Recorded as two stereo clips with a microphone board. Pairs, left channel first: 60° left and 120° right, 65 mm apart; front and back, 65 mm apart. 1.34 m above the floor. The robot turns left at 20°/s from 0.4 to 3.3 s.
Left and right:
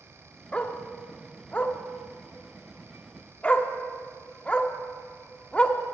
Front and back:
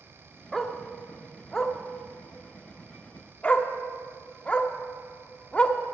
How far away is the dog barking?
About 0.9 m.